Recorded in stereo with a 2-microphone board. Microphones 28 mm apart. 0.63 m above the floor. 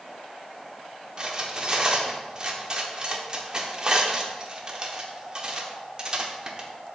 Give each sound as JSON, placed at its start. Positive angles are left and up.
{"t": 1.2, "sound": "cutlery clinking", "side_deg": -25, "distance_m": 0.9}